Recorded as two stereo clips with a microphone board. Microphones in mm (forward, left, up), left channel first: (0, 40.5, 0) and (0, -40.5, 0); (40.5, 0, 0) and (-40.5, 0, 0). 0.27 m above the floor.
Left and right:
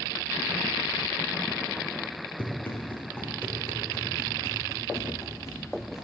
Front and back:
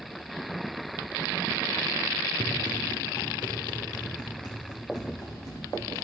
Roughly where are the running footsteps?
Ahead.